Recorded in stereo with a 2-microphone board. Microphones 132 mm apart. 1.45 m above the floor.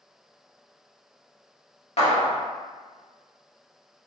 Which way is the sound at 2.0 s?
60° left (ahead or behind).